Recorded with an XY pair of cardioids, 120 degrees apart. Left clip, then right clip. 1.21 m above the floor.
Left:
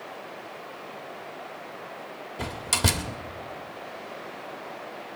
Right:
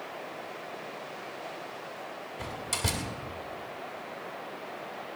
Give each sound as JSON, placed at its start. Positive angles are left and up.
{"t": 2.4, "sound": "a door slam", "azimuth_deg": 50, "distance_m": 1.9}